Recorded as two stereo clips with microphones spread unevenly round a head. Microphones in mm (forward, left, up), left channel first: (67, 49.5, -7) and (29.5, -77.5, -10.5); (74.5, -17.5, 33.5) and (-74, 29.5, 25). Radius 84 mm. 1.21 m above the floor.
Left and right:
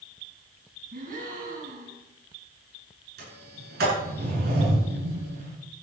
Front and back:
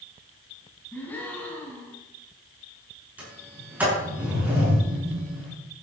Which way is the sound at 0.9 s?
95° right.